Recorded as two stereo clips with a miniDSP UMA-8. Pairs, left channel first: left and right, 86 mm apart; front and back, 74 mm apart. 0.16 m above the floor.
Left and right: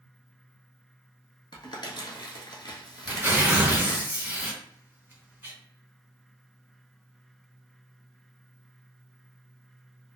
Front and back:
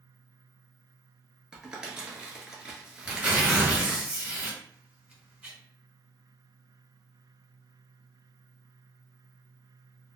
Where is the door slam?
No door slam in this recording.